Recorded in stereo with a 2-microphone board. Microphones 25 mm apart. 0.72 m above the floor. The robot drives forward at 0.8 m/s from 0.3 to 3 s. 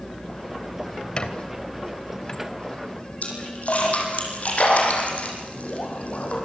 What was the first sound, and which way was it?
A squeak, 35° left (ahead or behind).